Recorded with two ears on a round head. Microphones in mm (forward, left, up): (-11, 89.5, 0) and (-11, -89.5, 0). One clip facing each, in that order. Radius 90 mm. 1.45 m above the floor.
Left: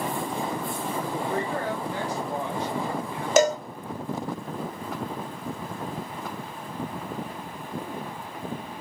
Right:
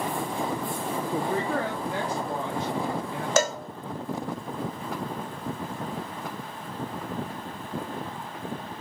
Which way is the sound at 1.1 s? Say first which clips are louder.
Right 3 dB; 70° right (ahead or behind).